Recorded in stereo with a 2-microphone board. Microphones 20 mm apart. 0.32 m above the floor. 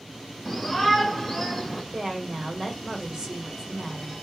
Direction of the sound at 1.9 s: 35° right (ahead or behind).